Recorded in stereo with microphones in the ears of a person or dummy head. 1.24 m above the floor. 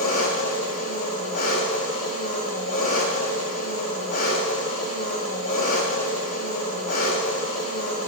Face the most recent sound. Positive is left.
turn(degrees=50)  # may be behind; listen again after turning